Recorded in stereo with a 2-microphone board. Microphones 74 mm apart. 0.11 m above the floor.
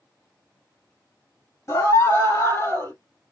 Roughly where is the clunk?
No clunk in this recording.